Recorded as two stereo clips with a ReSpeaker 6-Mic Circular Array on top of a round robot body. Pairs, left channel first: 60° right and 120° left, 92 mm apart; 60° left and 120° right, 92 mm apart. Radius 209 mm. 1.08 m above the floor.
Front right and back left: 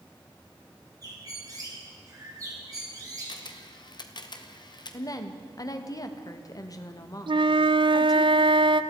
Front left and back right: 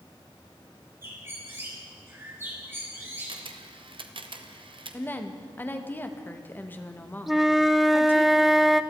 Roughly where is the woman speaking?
Ahead.